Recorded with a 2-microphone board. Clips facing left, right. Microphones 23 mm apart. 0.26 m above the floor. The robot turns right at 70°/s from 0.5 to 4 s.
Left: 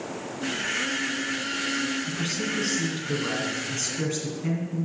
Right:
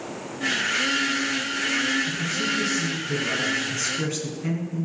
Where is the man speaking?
50° left, 3 m; by 4.8 s 170° right, 3 m.